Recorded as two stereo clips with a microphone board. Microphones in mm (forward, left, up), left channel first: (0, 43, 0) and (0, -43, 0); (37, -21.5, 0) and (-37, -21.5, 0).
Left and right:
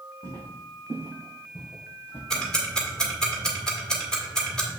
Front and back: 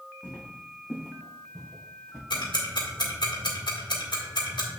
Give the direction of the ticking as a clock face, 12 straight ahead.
12 o'clock.